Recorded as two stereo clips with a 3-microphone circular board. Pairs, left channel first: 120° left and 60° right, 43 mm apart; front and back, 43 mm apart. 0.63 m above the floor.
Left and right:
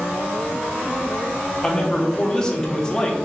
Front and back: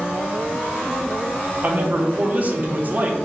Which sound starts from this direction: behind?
A man speaking, at 1.6 s.